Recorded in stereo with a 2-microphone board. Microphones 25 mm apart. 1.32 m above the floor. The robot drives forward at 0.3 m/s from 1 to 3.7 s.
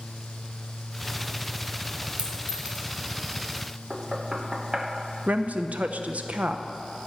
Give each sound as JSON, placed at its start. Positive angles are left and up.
{"t": 2.2, "sound": "a clink", "side_deg": -80, "distance_m": 2.5}
{"t": 3.9, "sound": "knocking", "side_deg": -30, "distance_m": 1.1}
{"t": 5.3, "sound": "a woman speaking", "side_deg": -80, "distance_m": 0.7}